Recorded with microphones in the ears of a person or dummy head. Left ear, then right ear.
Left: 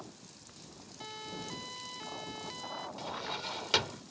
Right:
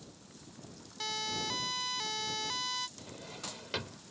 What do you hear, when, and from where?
1.0 s a siren: 50° right (ahead or behind); by 2.9 s 55° right (ahead or behind)
3.0 s a drawer: 45° left (ahead or behind)